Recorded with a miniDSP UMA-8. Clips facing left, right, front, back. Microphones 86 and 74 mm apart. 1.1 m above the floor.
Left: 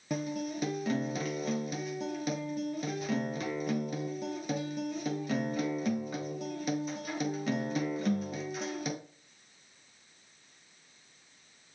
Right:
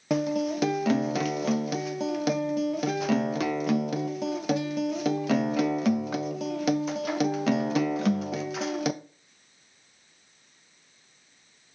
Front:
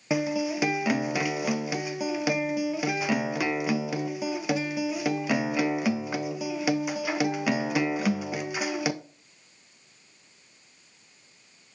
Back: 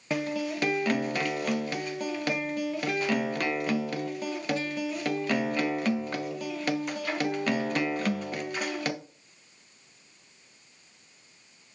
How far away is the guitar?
About 0.6 m.